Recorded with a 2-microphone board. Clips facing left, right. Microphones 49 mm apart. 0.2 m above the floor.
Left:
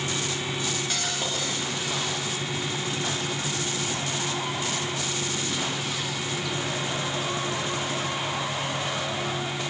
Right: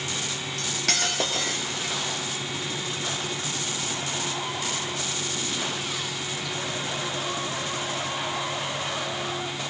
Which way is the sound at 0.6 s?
80° right.